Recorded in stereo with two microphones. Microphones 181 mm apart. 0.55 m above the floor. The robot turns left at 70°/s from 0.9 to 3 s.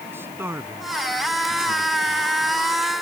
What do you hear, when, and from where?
0.1 s a man speaking: 10° right (ahead or behind); by 2.3 s 65° right (ahead or behind)